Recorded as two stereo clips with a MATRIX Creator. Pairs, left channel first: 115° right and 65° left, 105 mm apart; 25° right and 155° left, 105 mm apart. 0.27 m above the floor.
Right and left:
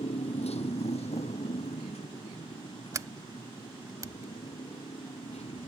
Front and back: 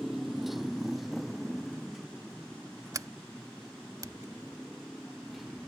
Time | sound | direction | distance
0.0 | a motorcycle | 115° right | ?
2.9 | a sliding door | 115° left | ?